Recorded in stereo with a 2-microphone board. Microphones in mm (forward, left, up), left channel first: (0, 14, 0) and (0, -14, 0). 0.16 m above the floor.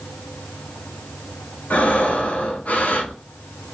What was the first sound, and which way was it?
Breathing, 70° left (ahead or behind).